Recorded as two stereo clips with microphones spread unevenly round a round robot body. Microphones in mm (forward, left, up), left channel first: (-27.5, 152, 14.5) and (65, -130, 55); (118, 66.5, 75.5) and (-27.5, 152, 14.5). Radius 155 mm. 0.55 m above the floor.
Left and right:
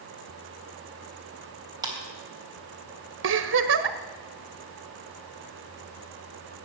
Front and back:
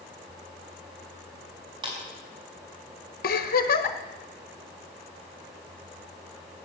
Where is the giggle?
25° right, 1.0 m.